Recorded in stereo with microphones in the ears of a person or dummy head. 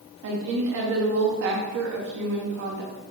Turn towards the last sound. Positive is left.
turn(degrees=-50)  # may be behind; listen again after turning